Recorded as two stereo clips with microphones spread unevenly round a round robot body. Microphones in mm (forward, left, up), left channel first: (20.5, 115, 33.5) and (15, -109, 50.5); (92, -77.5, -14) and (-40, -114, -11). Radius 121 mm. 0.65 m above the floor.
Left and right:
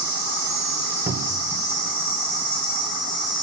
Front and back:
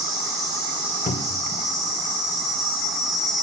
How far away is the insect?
About 0.9 m.